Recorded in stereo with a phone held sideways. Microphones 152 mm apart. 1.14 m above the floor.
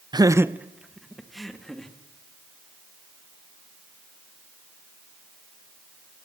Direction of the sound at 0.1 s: 25° right (ahead or behind).